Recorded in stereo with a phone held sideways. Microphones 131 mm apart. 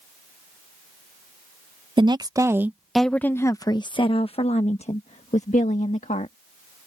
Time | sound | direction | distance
2.0 | a woman speaking | 40° right (ahead or behind) | ?